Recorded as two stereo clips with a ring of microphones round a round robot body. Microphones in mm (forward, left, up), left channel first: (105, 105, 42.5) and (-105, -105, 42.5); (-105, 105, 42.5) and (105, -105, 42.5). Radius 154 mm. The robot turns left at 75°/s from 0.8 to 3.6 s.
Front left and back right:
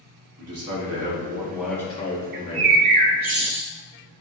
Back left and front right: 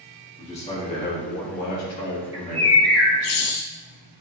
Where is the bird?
125° right, 0.7 m; by 3.7 s 140° left, 0.7 m.